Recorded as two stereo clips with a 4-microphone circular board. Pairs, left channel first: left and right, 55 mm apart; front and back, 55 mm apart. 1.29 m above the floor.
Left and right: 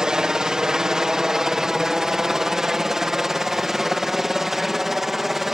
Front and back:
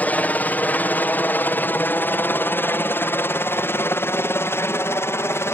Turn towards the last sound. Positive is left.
turn(degrees=-5)